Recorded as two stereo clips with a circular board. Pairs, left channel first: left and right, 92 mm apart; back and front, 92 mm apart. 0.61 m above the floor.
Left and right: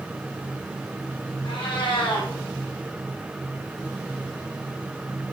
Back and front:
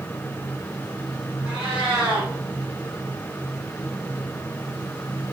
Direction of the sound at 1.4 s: 80° left.